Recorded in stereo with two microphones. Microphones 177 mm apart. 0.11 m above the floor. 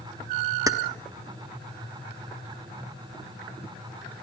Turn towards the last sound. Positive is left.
turn(degrees=-20)  # may be behind; listen again after turning